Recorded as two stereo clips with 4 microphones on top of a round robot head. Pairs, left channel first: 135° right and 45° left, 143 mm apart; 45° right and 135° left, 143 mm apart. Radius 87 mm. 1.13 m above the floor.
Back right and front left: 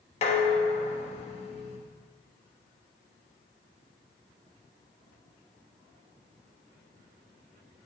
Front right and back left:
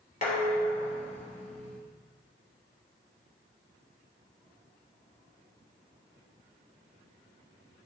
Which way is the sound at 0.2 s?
90° right.